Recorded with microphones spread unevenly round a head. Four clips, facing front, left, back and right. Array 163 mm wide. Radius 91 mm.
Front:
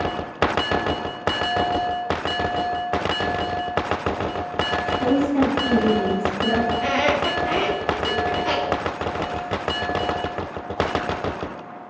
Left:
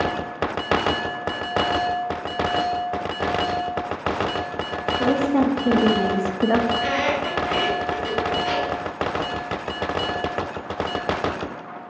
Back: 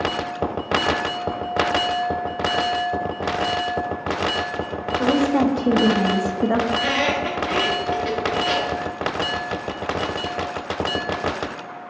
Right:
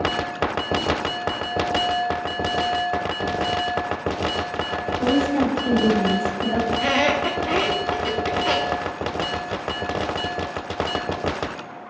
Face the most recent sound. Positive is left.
turn(degrees=-80)